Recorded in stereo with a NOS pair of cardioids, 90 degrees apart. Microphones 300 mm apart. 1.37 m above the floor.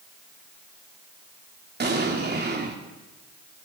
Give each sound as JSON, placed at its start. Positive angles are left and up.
{"t": 1.8, "sound": "an explosion", "azimuth_deg": -35, "distance_m": 4.5}